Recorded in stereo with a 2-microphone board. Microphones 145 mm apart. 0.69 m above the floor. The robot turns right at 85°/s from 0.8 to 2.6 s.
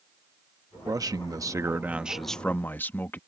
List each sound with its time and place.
0.9 s a man speaking: 25° right (ahead or behind); by 3.2 s 15° left (ahead or behind)